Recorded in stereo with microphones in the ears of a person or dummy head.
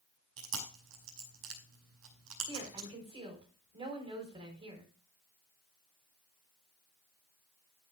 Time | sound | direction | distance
0.4 | chewing | 75° right (ahead or behind) | 5.5 m
2.5 | a woman speaking | 30° right (ahead or behind) | 4.5 m